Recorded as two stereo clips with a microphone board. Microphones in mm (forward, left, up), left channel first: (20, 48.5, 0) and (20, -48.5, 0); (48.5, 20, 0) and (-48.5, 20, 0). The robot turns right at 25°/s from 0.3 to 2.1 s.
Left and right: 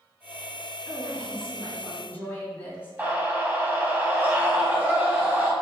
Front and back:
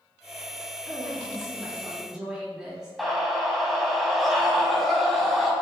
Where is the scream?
95° right, 1.0 m.